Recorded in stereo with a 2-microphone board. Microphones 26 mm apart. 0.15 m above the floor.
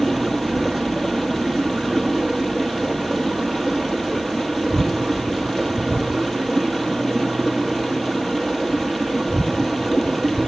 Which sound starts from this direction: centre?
Running water, at 0.0 s.